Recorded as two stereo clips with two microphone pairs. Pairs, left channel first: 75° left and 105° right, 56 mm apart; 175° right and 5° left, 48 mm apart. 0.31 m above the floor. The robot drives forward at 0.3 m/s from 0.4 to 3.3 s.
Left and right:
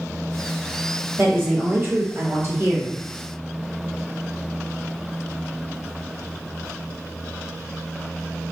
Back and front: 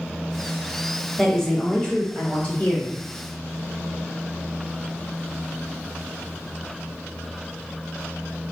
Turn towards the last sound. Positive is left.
turn(degrees=-135)